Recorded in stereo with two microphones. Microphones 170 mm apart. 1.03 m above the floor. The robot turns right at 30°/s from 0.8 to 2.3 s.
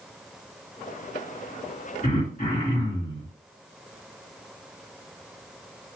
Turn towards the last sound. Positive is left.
turn(degrees=55)  # may be behind; listen again after turning